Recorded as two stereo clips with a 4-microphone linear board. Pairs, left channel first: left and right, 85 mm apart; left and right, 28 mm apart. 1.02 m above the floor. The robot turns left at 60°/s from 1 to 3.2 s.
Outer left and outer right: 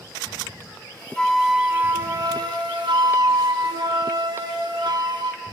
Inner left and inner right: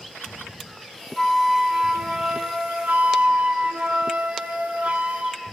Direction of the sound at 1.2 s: 15° left.